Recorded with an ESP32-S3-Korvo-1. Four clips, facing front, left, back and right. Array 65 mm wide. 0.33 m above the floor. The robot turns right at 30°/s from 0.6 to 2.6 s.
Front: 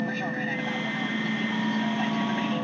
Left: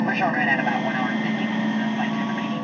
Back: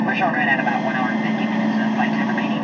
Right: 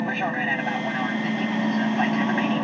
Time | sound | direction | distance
0.0 | an aircraft | 165° left | ?